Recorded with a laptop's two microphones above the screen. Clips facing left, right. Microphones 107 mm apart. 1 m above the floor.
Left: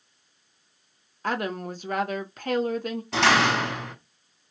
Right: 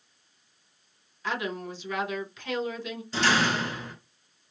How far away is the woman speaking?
About 1.2 m.